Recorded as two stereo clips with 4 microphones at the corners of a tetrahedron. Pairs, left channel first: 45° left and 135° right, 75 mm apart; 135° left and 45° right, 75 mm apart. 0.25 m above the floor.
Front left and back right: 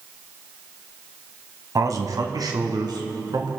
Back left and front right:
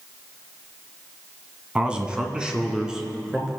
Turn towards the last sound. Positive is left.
turn(degrees=-130)